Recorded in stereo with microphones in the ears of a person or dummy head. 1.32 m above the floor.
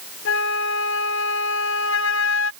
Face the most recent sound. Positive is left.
turn(degrees=75)  # may be behind; listen again after turning